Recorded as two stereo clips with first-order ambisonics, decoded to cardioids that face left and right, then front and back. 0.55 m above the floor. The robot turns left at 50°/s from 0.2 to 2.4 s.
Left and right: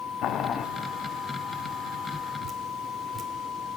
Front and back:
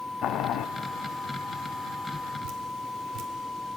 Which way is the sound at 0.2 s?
55° left.